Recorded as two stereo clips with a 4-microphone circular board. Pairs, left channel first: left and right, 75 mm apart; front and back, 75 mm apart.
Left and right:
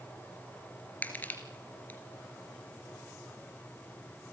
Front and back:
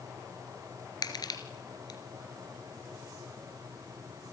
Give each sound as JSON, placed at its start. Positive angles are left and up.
{"t": 1.0, "sound": "crushing", "azimuth_deg": 25, "distance_m": 2.5}